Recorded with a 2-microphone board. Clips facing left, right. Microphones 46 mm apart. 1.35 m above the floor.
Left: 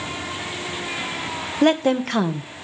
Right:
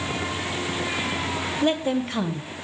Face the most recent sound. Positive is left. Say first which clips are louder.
# left 6 dB
turn(degrees=65)  # may be behind; listen again after turning